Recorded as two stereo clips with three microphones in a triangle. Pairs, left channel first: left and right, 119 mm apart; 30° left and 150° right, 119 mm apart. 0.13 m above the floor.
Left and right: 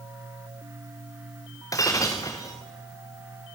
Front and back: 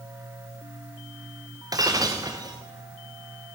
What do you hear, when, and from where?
1.7 s breaking glass: 150° left, 3.5 m